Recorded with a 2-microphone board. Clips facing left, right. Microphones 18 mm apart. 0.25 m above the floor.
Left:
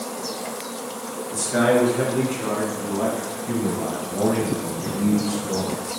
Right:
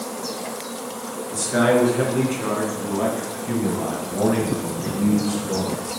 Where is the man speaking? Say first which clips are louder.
Right 1 dB; 15° right (ahead or behind), 3.5 m.